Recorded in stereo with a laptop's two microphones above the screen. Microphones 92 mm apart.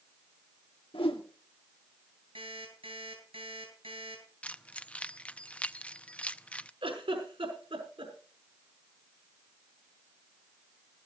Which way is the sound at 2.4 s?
80° right.